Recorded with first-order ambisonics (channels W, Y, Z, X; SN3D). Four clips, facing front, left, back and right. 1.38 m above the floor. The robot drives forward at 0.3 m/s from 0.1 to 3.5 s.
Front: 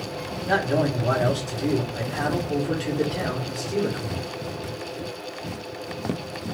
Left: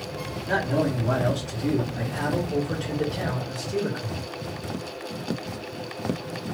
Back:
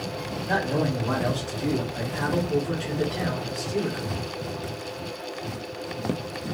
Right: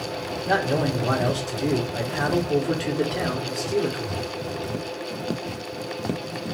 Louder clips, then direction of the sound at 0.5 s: Right 2 dB, front 3 dB; 50° right.